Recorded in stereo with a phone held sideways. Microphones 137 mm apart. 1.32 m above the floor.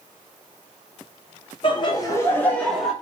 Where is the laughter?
40° left (ahead or behind), 1.1 m; by 2.9 s centre (ahead or behind), 1.3 m.